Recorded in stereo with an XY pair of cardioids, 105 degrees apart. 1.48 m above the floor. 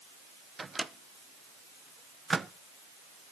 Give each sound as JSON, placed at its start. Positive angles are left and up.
{"t": 0.6, "sound": "a microwave", "azimuth_deg": -25, "distance_m": 0.7}